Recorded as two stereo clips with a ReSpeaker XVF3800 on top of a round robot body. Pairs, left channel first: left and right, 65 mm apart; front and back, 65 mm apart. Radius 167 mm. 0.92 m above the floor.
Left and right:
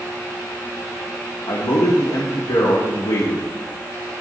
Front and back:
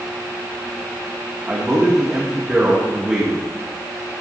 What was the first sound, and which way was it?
A man speaking, 105° left.